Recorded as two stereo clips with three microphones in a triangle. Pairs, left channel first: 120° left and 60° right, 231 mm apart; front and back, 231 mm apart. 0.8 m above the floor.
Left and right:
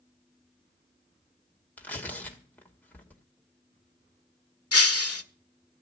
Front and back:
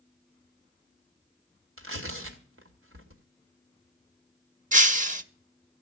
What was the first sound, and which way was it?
Tearing paper, 155° right.